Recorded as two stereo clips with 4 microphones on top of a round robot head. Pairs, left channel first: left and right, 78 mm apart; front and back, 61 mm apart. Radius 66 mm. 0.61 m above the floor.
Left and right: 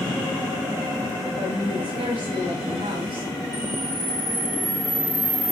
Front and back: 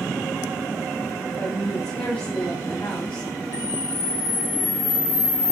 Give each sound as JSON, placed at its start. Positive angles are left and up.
{"t": 1.4, "sound": "a woman speaking", "azimuth_deg": -65, "distance_m": 4.0}
{"t": 3.5, "sound": "a camera shutter", "azimuth_deg": -20, "distance_m": 1.6}